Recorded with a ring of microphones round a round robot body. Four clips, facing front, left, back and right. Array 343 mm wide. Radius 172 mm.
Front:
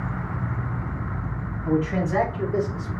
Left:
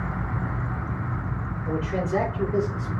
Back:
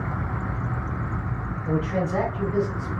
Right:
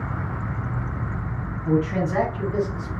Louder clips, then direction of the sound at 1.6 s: Right 5 dB, front 2 dB; 25° right.